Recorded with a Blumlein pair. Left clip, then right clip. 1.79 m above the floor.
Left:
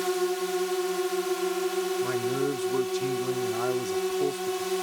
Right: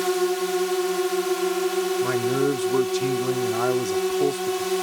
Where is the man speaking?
20° right.